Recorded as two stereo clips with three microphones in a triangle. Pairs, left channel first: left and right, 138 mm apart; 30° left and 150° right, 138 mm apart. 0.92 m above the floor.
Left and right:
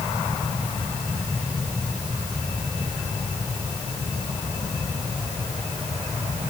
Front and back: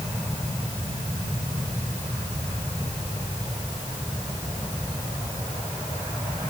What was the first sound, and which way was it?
Only background noise.